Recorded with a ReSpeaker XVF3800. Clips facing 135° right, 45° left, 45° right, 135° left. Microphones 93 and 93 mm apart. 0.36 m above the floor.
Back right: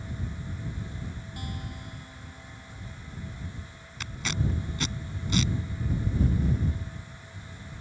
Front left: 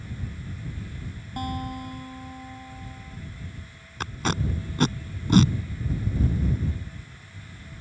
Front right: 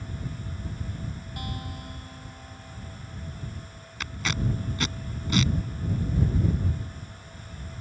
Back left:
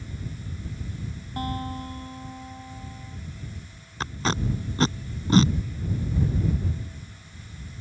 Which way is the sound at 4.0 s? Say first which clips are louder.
Front left 5 dB, back left 4 dB; 85° left.